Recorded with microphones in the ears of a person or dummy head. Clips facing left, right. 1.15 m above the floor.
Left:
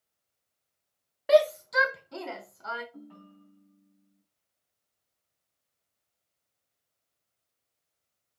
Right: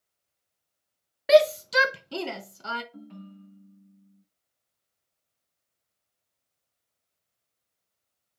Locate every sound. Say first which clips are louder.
1.3 s a shout: right 3 dB; 30° right (ahead or behind), 0.6 m; by 2.8 s 40° right (ahead or behind), 1.4 m
2.9 s a ringtone: right 4 dB; 35° right (ahead or behind), 3.5 m